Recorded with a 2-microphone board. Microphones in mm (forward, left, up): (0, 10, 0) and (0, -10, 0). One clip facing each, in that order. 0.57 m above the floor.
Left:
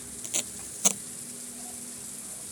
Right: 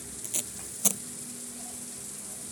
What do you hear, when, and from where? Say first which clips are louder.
0.2 s tape being pulled: left 3 dB; 20° left (ahead or behind)